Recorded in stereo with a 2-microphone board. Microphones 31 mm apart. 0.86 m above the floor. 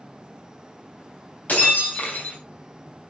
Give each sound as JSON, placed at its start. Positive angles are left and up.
{"t": 1.5, "sound": "breaking glass", "side_deg": 60, "distance_m": 3.5}